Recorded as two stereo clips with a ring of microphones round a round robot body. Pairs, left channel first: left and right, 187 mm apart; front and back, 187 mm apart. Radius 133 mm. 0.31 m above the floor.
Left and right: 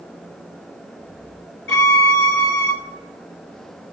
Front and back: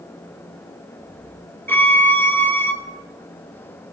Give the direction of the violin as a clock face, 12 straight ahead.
9 o'clock.